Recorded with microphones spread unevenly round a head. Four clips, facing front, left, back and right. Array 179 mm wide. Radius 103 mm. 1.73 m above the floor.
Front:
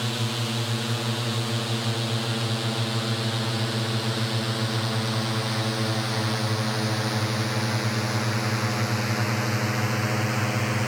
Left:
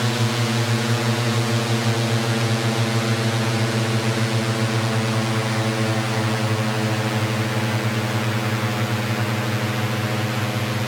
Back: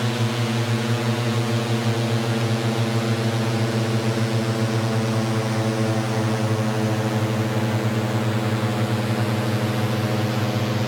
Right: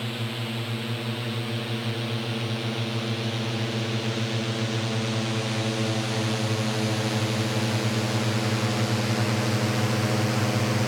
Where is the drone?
130° left; by 10.9 s 165° right.